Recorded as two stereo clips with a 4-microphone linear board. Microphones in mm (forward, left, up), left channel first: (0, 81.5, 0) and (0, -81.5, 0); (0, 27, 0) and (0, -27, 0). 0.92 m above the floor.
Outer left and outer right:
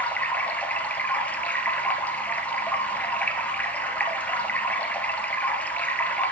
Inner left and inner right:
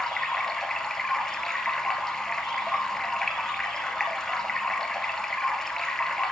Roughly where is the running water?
Centre.